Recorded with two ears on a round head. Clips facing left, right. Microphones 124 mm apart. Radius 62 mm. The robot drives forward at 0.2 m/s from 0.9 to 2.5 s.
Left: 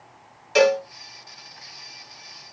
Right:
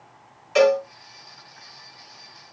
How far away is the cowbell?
About 1.9 m.